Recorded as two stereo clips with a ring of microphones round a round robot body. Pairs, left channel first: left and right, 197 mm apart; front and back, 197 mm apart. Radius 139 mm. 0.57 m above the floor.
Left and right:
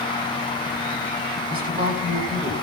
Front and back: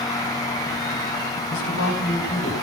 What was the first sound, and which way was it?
A man speaking, 50° right.